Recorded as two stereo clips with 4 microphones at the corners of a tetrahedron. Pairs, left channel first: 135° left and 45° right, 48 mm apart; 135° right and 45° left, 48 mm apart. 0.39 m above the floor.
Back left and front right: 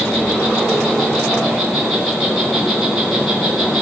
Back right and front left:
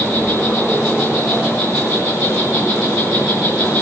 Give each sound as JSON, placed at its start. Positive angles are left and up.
{"t": 0.0, "sound": "an insect", "azimuth_deg": -130, "distance_m": 4.0}